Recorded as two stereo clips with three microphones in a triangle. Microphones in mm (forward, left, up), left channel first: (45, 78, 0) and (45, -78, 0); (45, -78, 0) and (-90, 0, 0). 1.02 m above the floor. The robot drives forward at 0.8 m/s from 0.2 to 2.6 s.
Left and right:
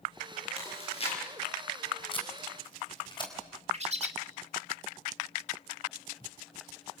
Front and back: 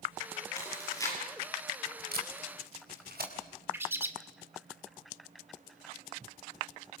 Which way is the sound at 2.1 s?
145° left.